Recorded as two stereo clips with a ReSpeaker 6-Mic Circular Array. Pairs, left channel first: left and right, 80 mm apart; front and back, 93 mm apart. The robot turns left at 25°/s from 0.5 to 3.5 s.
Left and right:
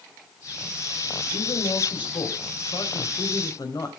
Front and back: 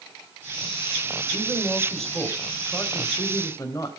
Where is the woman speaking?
105° left, 2.5 m; by 4.0 s 50° left, 2.5 m.